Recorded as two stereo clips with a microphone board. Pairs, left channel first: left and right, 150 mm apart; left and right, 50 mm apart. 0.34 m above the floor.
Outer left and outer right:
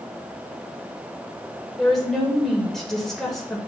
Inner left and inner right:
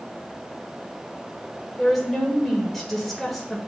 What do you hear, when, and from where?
1.8 s a woman speaking: centre (ahead or behind), 1.4 m